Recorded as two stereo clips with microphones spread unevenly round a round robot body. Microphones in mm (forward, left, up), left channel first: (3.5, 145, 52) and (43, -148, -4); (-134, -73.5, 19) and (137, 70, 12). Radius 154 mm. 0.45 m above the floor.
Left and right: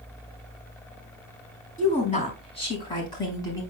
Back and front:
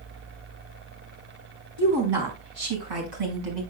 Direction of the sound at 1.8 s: 30° left.